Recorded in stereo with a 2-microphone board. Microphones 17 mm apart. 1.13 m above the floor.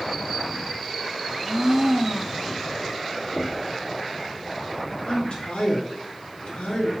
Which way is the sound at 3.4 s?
25° right (ahead or behind).